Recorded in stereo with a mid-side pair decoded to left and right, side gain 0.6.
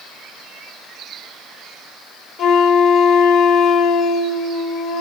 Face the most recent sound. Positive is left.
turn(degrees=55)